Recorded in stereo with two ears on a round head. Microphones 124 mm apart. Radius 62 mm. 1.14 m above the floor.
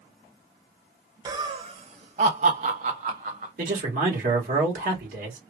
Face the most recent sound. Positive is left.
turn(degrees=-65)  # may be behind; listen again after turning